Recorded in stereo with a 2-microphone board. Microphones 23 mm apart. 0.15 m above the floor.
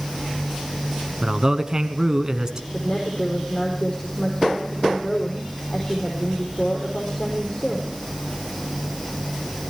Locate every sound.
1.2 s a man speaking: 30° right (ahead or behind), 1.3 m
2.7 s a woman speaking: 40° left (ahead or behind), 5 m